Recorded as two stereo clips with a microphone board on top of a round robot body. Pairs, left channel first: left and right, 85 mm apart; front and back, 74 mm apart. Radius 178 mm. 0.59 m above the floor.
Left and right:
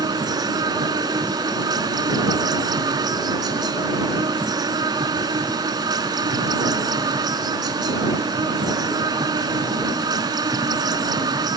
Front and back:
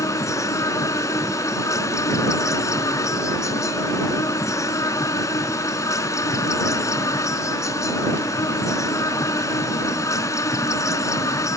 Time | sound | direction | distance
0.0 | an insect | 45° right | ?